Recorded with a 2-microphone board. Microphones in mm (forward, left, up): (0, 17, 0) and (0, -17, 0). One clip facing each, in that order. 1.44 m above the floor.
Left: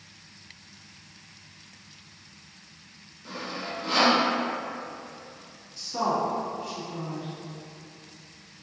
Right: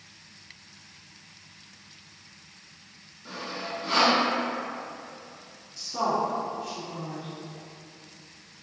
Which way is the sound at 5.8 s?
5° left (ahead or behind).